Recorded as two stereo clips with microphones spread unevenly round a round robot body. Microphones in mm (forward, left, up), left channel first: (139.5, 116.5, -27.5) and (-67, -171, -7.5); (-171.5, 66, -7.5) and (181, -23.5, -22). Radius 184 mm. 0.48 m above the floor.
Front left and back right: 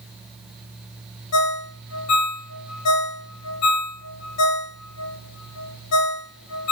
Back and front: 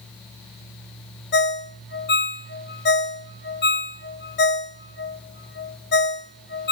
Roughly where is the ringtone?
Left.